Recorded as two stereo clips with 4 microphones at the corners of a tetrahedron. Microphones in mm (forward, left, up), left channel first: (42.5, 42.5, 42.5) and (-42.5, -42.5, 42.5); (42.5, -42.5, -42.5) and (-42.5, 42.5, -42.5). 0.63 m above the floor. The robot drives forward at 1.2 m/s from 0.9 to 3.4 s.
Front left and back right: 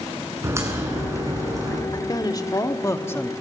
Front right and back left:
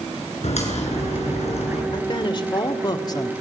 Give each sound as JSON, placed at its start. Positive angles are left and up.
{"t": 0.4, "sound": "a crack", "azimuth_deg": -70, "distance_m": 8.0}
{"t": 1.9, "sound": "a woman speaking", "azimuth_deg": -5, "distance_m": 2.5}